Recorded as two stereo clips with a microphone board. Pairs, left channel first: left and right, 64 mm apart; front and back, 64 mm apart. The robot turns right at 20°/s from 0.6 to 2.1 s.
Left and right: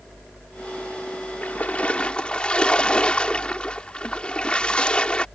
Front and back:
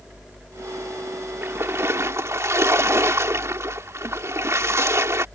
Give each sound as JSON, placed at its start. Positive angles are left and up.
{"t": 1.4, "sound": "a splash", "azimuth_deg": 145}